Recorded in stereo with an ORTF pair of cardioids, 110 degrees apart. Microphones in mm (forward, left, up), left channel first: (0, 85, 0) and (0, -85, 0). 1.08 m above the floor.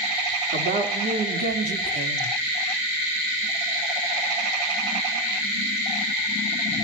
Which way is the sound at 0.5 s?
60° right.